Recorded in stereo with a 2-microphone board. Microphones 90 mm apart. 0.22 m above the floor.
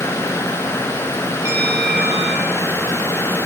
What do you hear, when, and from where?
1.4 s a bell: 25° right (ahead or behind), 5.5 m